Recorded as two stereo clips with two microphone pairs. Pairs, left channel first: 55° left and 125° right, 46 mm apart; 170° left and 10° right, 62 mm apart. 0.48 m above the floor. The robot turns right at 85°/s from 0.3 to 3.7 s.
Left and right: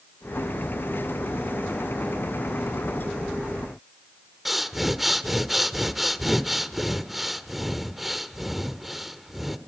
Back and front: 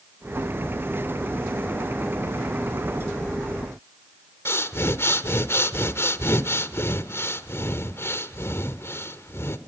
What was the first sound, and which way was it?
Breathing, 150° left.